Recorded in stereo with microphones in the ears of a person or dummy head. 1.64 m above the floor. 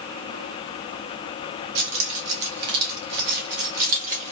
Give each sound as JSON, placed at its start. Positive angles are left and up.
{"t": 1.8, "sound": "keys jangling", "side_deg": -70, "distance_m": 2.5}